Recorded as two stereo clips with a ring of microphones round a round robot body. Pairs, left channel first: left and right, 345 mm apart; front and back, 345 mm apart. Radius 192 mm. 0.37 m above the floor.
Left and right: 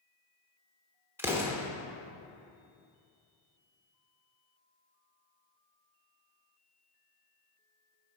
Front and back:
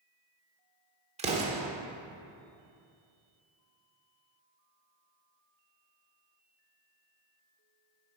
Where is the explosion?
160° right, 1.1 m.